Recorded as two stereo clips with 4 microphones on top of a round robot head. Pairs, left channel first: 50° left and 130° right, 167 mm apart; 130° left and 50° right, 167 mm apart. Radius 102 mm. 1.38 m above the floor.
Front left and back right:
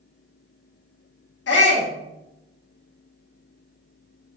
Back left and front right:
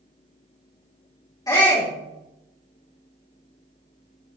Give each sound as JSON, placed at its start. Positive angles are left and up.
{"t": 1.5, "sound": "a shout", "azimuth_deg": 60, "distance_m": 3.5}